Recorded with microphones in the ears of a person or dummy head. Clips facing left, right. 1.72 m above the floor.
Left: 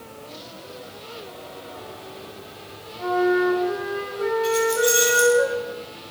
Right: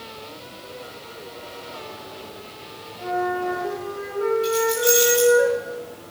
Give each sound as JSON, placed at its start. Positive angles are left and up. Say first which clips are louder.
{"t": 3.0, "sound": "a flute", "louder": "left 5 dB", "side_deg": 25, "distance_m": 4.5}
{"t": 4.4, "sound": "keys jangling", "louder": "even", "side_deg": -5, "distance_m": 6.5}